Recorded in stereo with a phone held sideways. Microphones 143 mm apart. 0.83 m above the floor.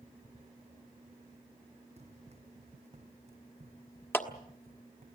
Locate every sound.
2.0 s running footsteps: 45° right (ahead or behind), 2.5 m
4.1 s a clap: 15° left (ahead or behind), 1.5 m